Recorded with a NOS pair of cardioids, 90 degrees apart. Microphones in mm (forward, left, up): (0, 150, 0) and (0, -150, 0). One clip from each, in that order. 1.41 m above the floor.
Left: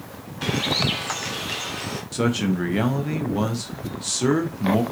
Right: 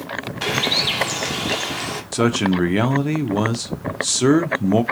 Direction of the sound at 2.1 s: 25° right.